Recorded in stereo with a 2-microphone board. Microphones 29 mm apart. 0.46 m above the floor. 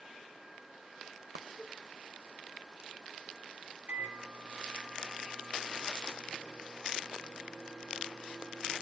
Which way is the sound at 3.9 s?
45° right (ahead or behind).